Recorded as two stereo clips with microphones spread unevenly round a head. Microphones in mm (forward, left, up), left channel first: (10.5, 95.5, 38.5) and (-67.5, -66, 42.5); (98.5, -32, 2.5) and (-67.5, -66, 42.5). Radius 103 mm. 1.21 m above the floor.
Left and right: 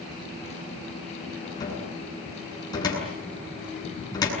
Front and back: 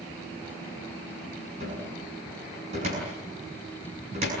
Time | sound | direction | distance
1.6 | a cupboard door | 130° left | 7.5 m